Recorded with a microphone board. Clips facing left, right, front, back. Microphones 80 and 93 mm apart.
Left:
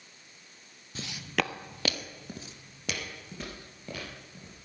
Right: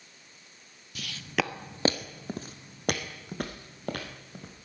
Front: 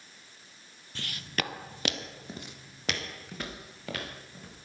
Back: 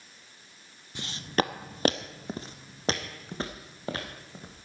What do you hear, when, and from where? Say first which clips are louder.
0.9 s footsteps: right 1 dB, back 7 dB; 120° left, 0.6 m; by 4.5 s 120° right, 3 m